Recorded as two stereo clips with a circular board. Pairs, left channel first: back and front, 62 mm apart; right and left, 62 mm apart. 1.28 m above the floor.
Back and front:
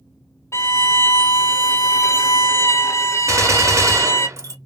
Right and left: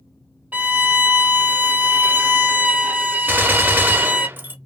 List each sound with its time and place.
0.5 s a violin: 150° left, 0.6 m
3.3 s a gunshot: 35° left, 0.7 m